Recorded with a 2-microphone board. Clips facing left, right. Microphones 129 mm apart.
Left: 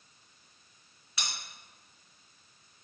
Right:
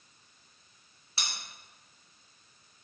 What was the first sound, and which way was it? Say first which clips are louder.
Cutlery clinking: even; 30° right (ahead or behind).